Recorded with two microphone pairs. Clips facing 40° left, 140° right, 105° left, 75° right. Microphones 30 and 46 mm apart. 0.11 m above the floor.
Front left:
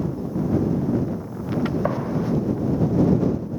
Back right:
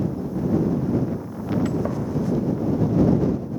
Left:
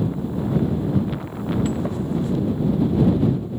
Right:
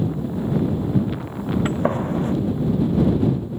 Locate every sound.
1.6 s a gunshot: 25° right